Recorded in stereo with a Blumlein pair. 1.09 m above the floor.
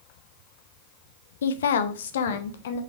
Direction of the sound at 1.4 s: 65° left.